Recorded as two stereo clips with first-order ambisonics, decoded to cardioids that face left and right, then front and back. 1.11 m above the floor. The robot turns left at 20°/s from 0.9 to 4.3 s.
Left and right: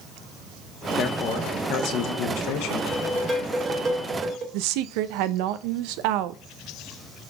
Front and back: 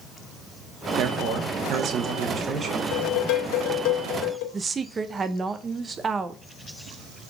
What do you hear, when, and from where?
1.0 s a man speaking: 150° left, 1.1 m; by 2.8 s 110° left, 1.1 m
2.9 s dishes clattering: straight ahead, 1.6 m; by 4.4 s 25° right, 1.6 m
4.5 s a woman speaking: 105° right, 0.6 m